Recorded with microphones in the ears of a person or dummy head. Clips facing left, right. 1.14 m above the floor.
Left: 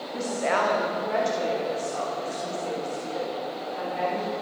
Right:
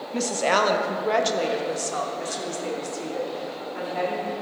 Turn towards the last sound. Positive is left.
turn(degrees=-60)  # may be behind; listen again after turning